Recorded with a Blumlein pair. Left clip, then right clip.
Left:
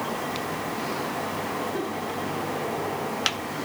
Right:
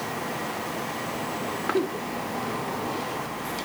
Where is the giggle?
70° right, 1.3 m.